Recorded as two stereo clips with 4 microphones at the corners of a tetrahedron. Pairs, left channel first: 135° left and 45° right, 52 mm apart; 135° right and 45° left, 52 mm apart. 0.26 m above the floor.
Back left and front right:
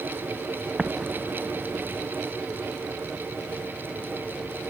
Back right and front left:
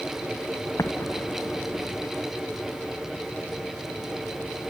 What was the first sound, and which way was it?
An explosion, 120° right.